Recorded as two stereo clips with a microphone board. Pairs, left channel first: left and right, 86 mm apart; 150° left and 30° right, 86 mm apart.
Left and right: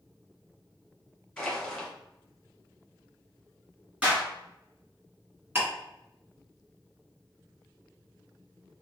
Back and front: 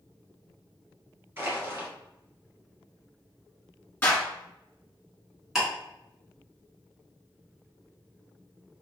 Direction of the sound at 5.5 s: 110° right.